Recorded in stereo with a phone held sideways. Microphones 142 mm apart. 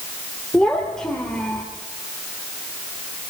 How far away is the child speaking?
About 2.5 m.